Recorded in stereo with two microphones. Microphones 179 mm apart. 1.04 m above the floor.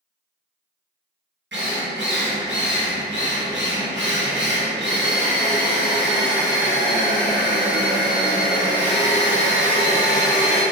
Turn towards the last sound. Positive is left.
turn(degrees=-80)